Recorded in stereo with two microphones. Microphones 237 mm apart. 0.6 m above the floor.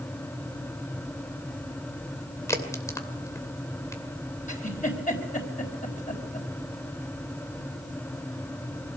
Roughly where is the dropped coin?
I don't hear a dropped coin.